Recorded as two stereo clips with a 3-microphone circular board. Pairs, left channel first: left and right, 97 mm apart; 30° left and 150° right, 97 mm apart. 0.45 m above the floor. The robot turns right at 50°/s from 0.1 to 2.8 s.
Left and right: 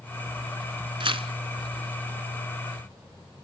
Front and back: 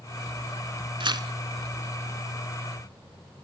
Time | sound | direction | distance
1.0 | tearing paper | 120° right | 0.8 m